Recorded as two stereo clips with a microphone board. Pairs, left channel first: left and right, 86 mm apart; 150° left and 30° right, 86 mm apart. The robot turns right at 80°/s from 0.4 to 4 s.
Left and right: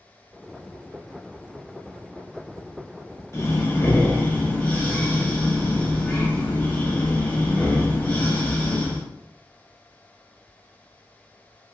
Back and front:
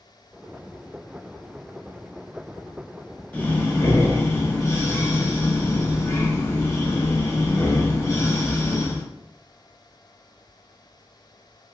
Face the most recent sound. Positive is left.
turn(degrees=145)